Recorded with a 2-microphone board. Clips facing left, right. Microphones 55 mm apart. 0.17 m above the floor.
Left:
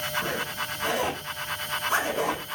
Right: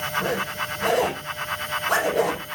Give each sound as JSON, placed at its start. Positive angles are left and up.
{"t": 0.2, "sound": "a zipper", "side_deg": -65, "distance_m": 6.5}